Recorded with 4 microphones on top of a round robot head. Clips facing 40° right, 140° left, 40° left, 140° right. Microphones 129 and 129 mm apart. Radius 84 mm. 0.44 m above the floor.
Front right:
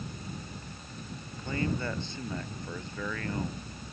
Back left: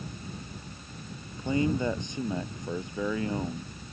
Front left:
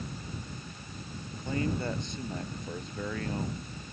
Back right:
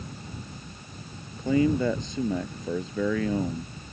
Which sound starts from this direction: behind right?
A man speaking, at 1.4 s.